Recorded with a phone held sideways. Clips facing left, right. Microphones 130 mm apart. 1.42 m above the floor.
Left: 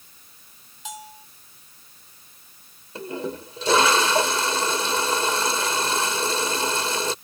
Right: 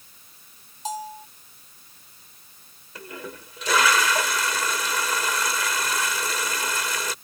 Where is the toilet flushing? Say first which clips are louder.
Left 8 dB; 30° left (ahead or behind).